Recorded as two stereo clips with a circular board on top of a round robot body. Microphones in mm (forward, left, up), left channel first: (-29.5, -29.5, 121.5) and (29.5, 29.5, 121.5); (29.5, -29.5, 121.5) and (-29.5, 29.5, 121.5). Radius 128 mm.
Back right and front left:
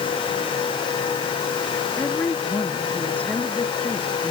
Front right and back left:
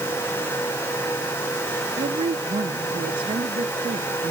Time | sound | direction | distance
2.0 | a woman speaking | 155° left | ?